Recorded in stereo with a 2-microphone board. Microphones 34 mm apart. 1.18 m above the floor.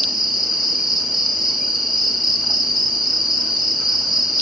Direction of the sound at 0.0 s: 5° right (ahead or behind).